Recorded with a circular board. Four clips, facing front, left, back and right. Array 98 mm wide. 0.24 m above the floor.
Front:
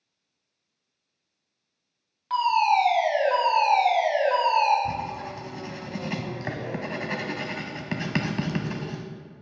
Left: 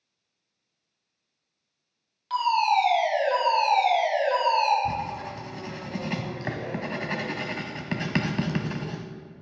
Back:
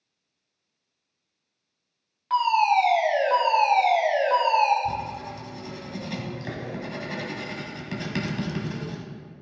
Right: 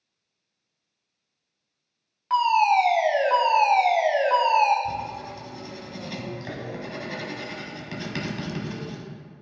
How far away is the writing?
About 1.0 m.